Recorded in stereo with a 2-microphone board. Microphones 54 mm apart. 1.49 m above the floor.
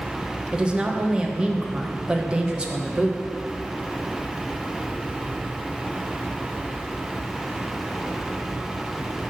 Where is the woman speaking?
20° right (ahead or behind), 1.0 m.